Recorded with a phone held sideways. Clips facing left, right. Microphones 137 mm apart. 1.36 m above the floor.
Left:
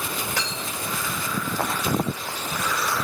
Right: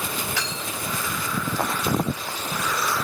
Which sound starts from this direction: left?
Cutlery clinking, at 0.4 s.